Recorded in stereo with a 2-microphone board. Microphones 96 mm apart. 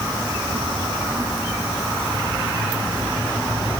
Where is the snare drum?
I don't hear a snare drum.